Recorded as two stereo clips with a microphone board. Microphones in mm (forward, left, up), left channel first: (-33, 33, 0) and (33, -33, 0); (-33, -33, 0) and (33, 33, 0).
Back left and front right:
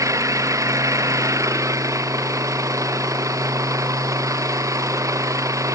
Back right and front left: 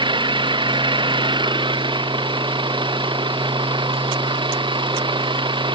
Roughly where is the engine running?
Ahead.